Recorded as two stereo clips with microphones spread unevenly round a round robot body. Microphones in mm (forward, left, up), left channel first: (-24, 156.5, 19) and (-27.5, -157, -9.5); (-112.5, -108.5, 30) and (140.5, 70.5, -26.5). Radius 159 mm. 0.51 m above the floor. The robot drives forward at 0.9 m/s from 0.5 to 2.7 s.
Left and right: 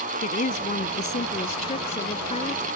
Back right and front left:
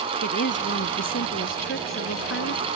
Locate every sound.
0.2 s a woman speaking: 155° left; by 2.6 s 160° left